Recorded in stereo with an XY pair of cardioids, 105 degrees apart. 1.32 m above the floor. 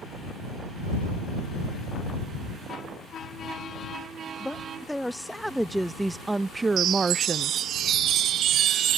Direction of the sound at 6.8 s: 65° right.